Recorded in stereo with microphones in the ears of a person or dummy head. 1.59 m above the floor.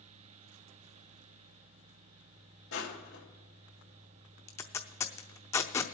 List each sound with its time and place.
2.7 s crushing: 70° left (ahead or behind), 2.5 m
4.5 s tape being pulled: 15° left (ahead or behind), 0.7 m